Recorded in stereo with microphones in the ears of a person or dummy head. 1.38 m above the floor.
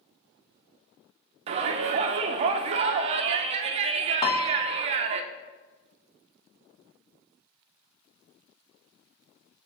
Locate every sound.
1.5 s a shout: 35° right (ahead or behind), 0.6 m
4.2 s a piano: 25° left (ahead or behind), 0.5 m